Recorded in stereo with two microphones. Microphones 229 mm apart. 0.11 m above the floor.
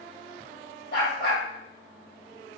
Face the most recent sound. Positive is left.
turn(degrees=50)  # may be behind; listen again after turning